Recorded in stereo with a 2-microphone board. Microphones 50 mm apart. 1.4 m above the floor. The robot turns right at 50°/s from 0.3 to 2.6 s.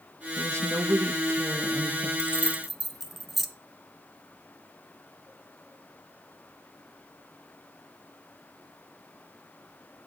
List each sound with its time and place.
0.4 s a woman speaking: 125° right, 1.2 m; by 2.1 s 35° right, 1.2 m
2.2 s keys jangling: 20° left (ahead or behind), 0.9 m; by 3.5 s centre (ahead or behind), 0.9 m